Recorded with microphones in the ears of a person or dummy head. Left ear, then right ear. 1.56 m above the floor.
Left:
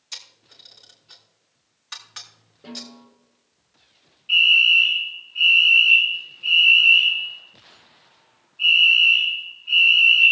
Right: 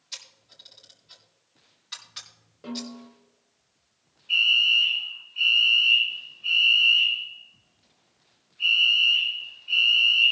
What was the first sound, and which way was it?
A camera shutter, 35° left (ahead or behind).